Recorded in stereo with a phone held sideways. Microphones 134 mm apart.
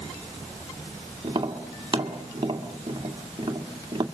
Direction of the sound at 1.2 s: 35° right (ahead or behind).